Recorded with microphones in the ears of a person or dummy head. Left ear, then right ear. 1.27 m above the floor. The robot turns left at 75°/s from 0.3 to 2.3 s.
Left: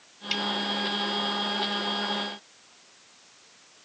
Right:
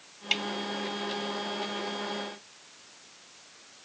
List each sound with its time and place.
0.3 s a snare drum: 15° right (ahead or behind); by 0.5 s 5° right (ahead or behind)